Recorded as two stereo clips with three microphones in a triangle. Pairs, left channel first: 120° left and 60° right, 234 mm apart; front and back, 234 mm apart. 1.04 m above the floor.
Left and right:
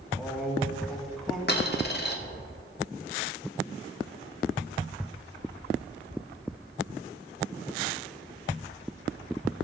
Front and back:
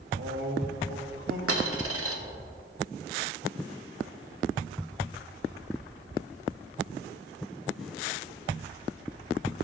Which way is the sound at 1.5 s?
165° left.